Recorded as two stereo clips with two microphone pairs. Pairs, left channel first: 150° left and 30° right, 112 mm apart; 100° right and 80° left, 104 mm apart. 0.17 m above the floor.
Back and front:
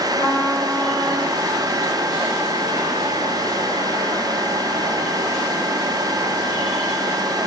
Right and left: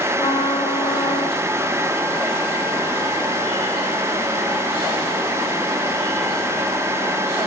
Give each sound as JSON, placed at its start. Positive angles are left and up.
{"t": 0.2, "sound": "a trumpet", "azimuth_deg": -145, "distance_m": 6.5}